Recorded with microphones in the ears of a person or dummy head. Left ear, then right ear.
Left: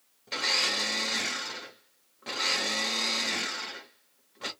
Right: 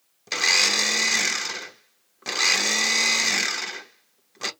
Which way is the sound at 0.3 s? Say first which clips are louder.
Right 7 dB; 80° right.